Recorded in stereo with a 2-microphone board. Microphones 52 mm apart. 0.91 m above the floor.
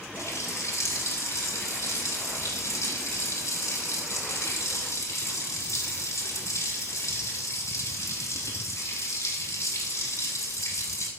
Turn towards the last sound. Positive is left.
turn(degrees=85)